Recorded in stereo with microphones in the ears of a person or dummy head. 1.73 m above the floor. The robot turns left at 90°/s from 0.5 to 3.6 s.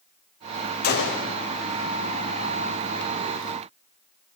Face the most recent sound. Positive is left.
turn(degrees=-115)